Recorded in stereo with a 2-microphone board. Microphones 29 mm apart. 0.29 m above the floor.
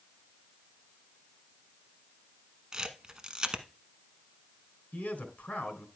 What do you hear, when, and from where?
2.7 s a camera shutter: 25° right (ahead or behind), 1.0 m
4.9 s a man speaking: 60° left (ahead or behind), 2.5 m